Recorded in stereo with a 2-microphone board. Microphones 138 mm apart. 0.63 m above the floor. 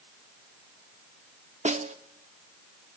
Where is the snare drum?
60° right (ahead or behind), 0.9 m.